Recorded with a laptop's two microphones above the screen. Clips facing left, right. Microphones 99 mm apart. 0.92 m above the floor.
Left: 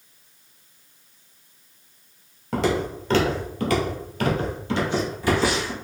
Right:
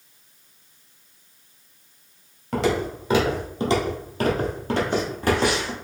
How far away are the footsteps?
About 1.2 m.